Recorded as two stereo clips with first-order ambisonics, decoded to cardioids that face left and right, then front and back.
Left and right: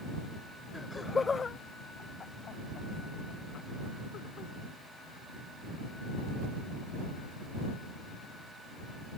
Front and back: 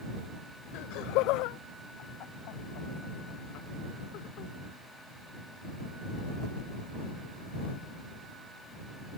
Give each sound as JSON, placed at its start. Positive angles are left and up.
{"t": 0.7, "sound": "laughter", "azimuth_deg": 10}